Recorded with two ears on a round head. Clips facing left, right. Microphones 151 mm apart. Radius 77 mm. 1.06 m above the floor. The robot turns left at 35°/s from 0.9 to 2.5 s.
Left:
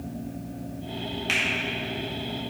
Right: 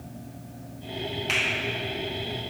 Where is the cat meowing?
No cat meowing in this recording.